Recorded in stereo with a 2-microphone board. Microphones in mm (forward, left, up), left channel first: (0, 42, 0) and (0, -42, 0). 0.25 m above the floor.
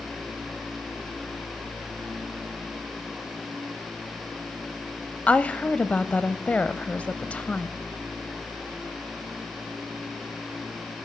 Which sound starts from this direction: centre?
A woman speaking, at 5.3 s.